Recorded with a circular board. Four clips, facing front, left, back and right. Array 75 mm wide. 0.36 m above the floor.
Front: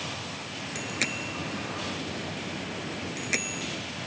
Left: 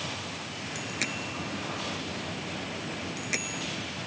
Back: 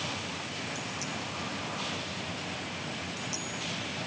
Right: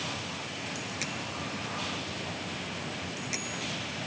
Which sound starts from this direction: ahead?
A bicycle bell, at 0.8 s.